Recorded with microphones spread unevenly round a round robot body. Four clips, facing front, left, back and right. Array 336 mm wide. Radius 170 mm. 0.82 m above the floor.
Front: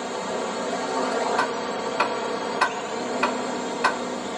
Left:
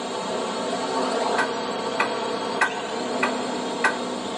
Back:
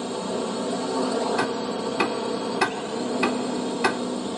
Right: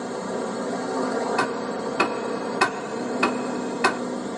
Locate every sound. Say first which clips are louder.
0.0 s a drone: left 1 dB, even; 150° right
1.4 s ticking: even, even; 135° right